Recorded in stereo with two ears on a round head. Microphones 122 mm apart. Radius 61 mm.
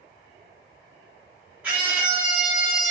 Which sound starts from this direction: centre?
A scream, at 1.6 s.